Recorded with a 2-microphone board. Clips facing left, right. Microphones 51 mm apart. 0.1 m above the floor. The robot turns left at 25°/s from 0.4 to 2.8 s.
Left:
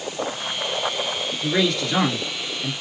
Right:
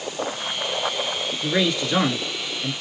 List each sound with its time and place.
1.4 s a man speaking: 165° right, 1.2 m; by 2.7 s 165° left, 1.2 m